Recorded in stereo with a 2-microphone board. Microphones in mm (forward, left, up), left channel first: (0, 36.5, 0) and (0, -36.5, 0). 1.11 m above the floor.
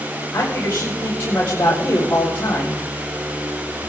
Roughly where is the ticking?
I don't hear ticking.